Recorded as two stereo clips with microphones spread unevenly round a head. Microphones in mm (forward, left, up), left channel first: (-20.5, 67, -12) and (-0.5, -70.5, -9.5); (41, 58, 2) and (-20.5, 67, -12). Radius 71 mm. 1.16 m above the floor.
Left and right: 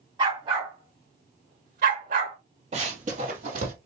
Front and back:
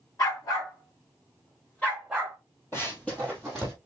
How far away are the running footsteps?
About 1.9 m.